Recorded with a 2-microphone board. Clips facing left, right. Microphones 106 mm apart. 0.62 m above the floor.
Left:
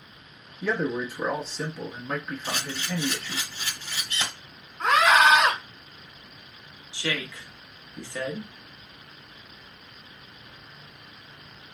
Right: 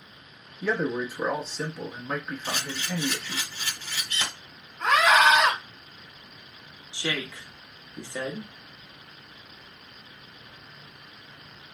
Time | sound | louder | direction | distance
0.6 | a man speaking | even | 5° right (ahead or behind) | 0.9 m
2.4 | a camera shutter | even | 15° left (ahead or behind) | 3 m
4.8 | a scream | left 1 dB | 30° left (ahead or behind) | 1.9 m
6.9 | a woman speaking | even | 20° right (ahead or behind) | 1.1 m